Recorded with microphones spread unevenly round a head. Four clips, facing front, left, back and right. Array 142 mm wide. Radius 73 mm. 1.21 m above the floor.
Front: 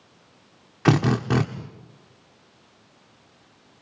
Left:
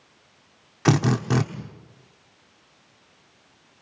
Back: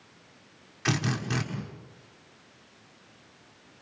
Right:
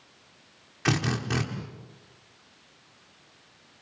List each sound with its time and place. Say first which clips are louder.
0.8 s a drill: left 7 dB, front 10 dB; 35° left, 1.4 m